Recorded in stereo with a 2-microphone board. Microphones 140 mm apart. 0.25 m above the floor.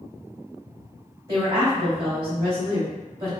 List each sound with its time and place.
1.3 s a woman speaking: 25° right (ahead or behind), 1.5 m